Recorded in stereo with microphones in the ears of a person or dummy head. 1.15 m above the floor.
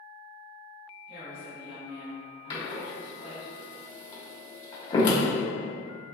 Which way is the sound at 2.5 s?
35° left (ahead or behind).